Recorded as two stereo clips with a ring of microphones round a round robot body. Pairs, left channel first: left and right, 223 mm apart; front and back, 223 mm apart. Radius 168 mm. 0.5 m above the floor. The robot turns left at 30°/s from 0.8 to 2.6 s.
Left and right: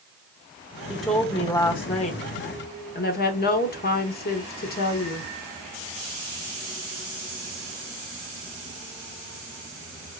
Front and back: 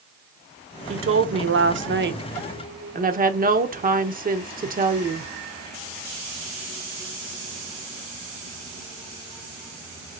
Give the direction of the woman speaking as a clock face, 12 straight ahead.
6 o'clock.